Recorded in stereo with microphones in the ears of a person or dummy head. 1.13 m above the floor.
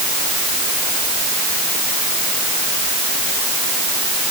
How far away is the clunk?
I don't hear a clunk.